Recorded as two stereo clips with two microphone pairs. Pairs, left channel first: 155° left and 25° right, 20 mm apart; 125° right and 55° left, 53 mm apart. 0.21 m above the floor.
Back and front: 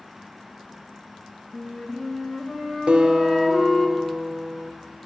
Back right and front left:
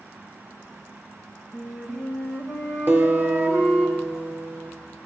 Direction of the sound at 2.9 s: 5° left.